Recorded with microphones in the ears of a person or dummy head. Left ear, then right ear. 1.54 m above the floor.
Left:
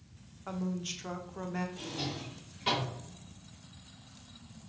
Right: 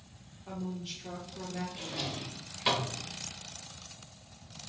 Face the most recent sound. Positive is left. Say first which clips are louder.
# right 2 dB
turn(degrees=-25)  # may be behind; listen again after turning